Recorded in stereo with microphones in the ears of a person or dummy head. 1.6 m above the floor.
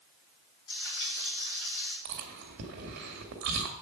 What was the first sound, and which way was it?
Frying, 55° left (ahead or behind).